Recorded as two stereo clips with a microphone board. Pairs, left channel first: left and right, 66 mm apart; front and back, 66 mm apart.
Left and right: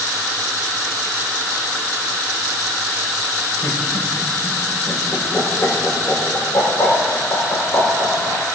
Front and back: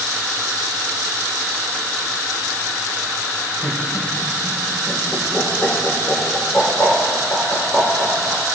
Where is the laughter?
55° left, 5 m.